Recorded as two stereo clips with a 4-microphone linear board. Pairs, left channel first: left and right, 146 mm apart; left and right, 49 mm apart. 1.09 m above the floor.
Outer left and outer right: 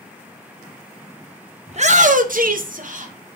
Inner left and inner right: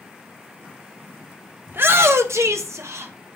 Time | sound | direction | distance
1.7 | a shout | 45° right (ahead or behind) | 0.7 m